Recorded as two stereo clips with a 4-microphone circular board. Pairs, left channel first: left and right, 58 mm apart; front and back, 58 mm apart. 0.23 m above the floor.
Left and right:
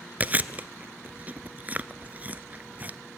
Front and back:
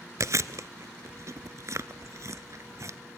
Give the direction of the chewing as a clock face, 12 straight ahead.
5 o'clock.